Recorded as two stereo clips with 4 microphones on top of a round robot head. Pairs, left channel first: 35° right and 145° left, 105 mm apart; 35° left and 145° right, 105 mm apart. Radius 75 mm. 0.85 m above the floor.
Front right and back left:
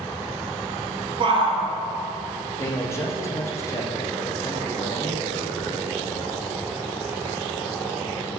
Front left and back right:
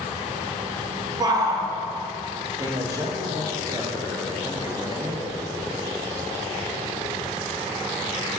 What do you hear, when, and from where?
1.2 s a shout: 170° left, 1.6 m
2.6 s a man speaking: 95° right, 1.5 m